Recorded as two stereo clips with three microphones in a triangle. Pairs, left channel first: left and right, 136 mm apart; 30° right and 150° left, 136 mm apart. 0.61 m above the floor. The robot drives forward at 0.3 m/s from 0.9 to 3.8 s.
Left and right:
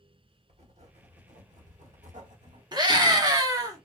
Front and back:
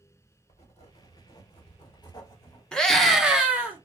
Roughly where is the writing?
Ahead right.